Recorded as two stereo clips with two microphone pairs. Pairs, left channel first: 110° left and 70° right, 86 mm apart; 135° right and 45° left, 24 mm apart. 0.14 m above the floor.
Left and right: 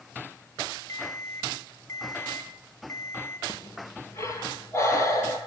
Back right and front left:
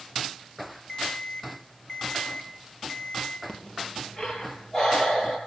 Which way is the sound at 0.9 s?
160° left.